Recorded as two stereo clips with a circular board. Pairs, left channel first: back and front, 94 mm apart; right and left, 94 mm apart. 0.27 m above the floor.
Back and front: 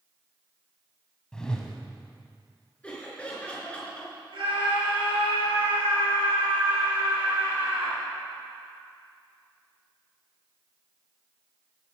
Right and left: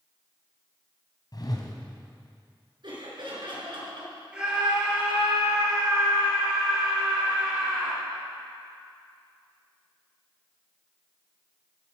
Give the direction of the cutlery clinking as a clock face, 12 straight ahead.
I don't hear cutlery clinking.